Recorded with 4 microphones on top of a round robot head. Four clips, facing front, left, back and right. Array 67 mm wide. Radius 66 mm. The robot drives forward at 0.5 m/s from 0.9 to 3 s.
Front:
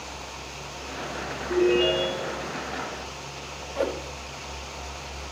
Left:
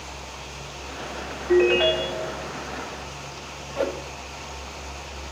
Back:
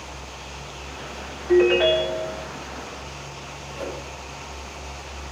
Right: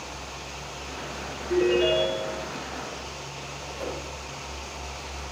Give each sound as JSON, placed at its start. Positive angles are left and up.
{"t": 1.5, "sound": "a ringtone", "azimuth_deg": 135, "distance_m": 6.0}
{"t": 3.8, "sound": "a whoosh", "azimuth_deg": 55, "distance_m": 2.5}